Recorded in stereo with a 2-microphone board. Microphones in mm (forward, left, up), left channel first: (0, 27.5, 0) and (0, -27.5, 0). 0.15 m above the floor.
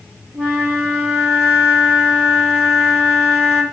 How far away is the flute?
About 5.5 m.